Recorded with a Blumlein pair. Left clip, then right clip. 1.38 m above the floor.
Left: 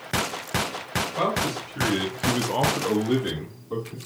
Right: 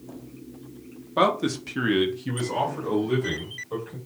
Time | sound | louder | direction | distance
1.2 | a man speaking | right 6 dB | 45° right | 0.9 m